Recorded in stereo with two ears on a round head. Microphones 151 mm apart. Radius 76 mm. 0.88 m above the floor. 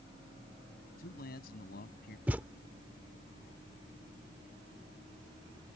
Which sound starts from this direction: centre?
A thud, at 2.3 s.